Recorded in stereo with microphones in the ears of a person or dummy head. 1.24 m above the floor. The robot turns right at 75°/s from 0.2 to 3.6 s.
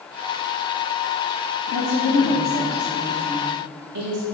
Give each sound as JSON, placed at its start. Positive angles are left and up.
{"t": 1.7, "sound": "a woman speaking", "azimuth_deg": 100, "distance_m": 0.7}